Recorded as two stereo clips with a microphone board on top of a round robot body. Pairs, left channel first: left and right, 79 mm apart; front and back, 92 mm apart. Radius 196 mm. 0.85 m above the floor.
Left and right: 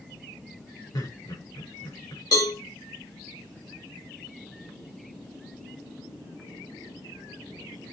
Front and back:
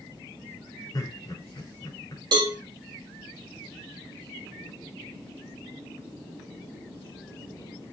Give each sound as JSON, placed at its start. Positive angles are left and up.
{"t": 0.9, "sound": "laughter", "azimuth_deg": 50, "distance_m": 5.0}
{"t": 2.3, "sound": "a cowbell", "azimuth_deg": 140, "distance_m": 1.3}